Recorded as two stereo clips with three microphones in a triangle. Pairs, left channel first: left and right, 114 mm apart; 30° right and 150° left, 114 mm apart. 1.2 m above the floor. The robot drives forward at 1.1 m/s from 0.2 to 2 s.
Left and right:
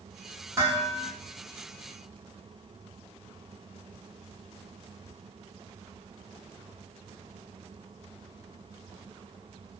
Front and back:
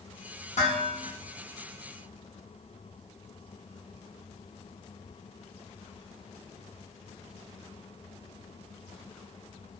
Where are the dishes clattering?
20° right, 1.2 m; by 1.1 s 40° right, 0.7 m.